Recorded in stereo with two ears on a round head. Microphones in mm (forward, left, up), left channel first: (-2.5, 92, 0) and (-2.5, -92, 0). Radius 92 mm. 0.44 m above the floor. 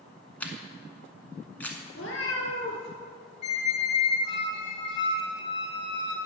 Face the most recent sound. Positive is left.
turn(degrees=55)  # may be behind; listen again after turning